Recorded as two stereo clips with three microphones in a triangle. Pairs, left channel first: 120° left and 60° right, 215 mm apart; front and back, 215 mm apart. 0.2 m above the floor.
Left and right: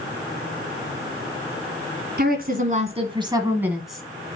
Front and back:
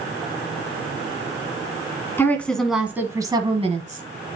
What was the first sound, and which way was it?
A woman speaking, 75° right.